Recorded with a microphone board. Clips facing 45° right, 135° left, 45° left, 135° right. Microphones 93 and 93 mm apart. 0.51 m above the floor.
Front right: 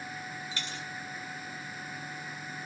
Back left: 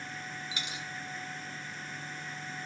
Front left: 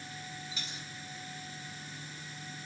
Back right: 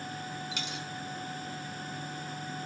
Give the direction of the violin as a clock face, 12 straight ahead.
I don't hear a violin.